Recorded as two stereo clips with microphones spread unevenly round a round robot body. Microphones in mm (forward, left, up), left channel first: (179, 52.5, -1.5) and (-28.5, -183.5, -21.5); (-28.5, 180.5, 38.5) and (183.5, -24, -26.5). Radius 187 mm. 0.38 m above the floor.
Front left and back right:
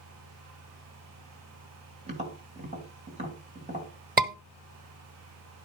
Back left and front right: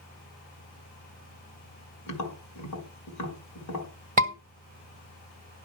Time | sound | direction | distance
2.1 | tapping | 165° left | 1.9 m
4.2 | a scream | 85° right | 1.5 m